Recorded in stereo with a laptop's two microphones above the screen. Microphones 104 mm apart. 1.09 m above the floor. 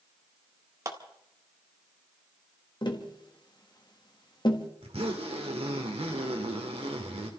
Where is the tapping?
45° left (ahead or behind), 1.6 m.